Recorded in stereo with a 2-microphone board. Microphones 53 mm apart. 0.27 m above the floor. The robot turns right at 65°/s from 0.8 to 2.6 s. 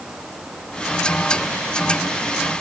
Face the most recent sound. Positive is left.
No sound to turn to.